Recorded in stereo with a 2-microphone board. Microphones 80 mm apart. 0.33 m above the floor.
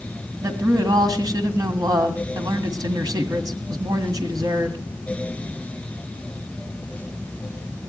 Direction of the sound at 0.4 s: 50° right (ahead or behind).